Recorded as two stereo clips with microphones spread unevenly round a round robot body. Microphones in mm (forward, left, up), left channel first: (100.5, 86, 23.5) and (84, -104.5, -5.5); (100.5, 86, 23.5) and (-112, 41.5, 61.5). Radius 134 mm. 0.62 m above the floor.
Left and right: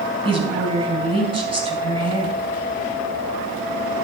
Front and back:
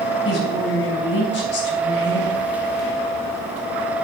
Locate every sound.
0.2 s a woman speaking: 35° right, 4.5 m